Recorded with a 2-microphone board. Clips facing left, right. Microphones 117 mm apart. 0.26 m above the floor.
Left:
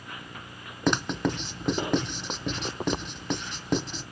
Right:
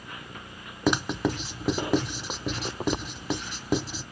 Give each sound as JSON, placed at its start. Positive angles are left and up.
{"t": 0.9, "sound": "writing", "side_deg": -5, "distance_m": 0.6}